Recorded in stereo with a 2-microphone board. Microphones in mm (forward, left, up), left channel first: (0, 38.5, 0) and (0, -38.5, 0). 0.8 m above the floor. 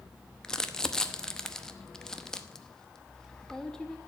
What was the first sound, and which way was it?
Crumpling, 10° left (ahead or behind).